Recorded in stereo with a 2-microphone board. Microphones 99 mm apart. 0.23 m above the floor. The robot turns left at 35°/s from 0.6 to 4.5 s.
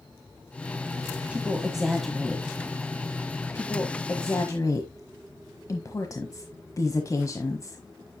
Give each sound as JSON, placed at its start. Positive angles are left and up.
{"t": 1.3, "sound": "a woman speaking", "side_deg": -15, "distance_m": 1.3}